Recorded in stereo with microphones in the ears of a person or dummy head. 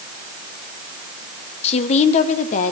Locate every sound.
1.6 s a woman speaking: 40° left (ahead or behind), 1.0 m; by 2.7 s 50° left (ahead or behind), 1.7 m